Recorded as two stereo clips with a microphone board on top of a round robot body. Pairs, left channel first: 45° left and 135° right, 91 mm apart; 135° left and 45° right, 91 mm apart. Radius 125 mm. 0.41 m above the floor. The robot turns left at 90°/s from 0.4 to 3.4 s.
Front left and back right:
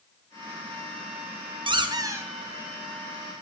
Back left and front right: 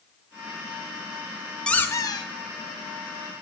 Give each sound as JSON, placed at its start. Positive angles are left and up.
{"t": 1.7, "sound": "a squeak", "azimuth_deg": -145, "distance_m": 1.3}